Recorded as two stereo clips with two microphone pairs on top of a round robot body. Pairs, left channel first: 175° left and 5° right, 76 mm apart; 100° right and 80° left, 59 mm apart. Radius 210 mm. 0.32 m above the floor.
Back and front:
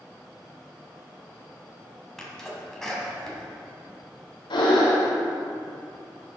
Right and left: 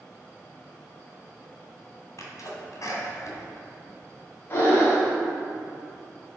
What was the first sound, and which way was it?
A sneeze, 110° right.